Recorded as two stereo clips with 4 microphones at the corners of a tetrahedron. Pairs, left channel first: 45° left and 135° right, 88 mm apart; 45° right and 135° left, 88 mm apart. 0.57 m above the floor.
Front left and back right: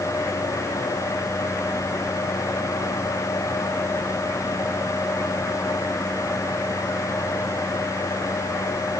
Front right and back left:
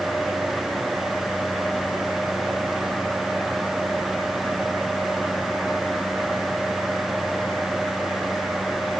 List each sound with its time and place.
Only background noise.